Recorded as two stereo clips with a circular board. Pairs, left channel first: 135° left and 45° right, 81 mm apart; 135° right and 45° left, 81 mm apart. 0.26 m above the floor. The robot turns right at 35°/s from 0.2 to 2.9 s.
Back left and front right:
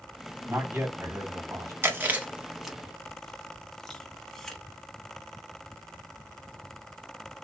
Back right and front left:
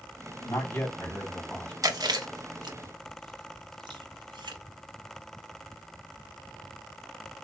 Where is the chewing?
15° left, 0.6 m; by 4.6 s 50° left, 0.6 m.